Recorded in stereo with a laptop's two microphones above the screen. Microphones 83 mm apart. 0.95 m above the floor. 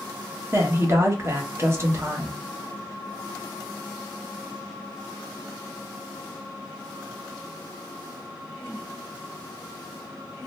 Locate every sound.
0.5 s a woman speaking: 30° right (ahead or behind), 1.1 m